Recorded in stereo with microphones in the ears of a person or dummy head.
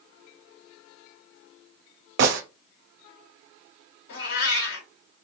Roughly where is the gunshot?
Right.